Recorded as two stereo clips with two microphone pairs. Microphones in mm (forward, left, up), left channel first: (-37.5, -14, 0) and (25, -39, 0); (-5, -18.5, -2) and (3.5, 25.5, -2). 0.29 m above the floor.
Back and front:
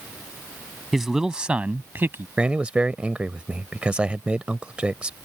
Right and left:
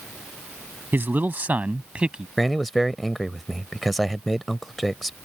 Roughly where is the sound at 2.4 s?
Ahead.